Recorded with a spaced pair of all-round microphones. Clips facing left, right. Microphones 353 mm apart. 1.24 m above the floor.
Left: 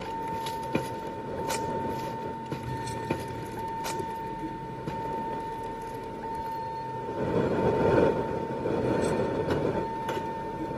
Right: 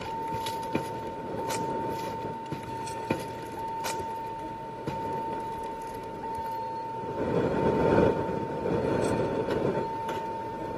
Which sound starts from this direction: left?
A vehicle, at 0.0 s.